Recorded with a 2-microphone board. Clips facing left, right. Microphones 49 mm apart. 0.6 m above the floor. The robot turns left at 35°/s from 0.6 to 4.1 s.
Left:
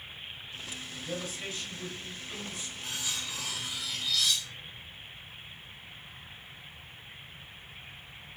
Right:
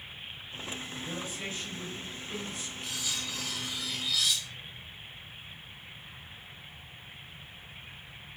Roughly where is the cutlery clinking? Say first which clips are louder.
Even; ahead left.